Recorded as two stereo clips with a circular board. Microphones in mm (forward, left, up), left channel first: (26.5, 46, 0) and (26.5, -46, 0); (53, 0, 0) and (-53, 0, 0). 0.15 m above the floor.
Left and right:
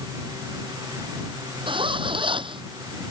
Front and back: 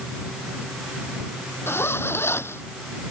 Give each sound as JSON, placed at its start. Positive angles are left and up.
{"t": 1.7, "sound": "a zipper", "azimuth_deg": -65}